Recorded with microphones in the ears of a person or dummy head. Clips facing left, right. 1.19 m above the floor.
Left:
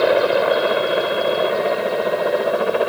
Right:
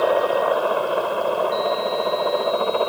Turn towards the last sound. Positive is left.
turn(degrees=20)  # may be behind; listen again after turning